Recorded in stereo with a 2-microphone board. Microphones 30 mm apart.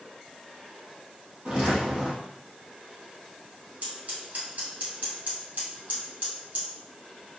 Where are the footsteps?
40° right (ahead or behind), 1.6 m.